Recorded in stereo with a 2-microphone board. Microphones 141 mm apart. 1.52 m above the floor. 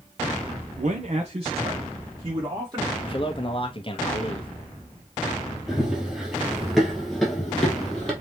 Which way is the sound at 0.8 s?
65° right (ahead or behind).